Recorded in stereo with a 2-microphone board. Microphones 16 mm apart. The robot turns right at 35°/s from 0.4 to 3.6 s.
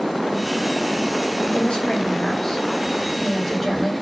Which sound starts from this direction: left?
A woman speaking, at 1.5 s.